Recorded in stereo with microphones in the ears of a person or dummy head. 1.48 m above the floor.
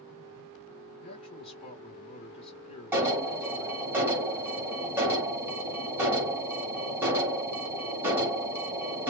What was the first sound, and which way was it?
A man speaking, 35° left (ahead or behind).